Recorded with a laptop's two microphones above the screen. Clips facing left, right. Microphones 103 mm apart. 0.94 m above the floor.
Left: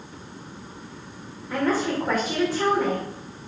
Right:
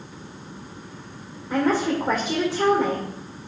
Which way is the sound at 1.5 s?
15° right (ahead or behind).